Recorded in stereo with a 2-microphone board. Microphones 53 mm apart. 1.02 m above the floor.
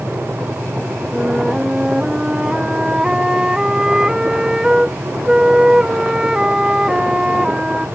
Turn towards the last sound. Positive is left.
turn(degrees=-10)  # may be behind; listen again after turning